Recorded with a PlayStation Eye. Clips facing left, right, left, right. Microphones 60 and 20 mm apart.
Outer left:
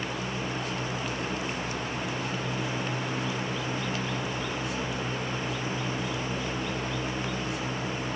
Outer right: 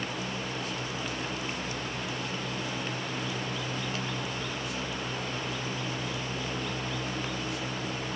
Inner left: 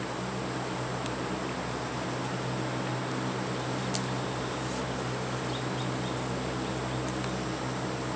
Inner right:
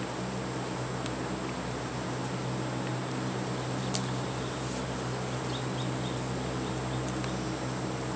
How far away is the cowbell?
No cowbell in this recording.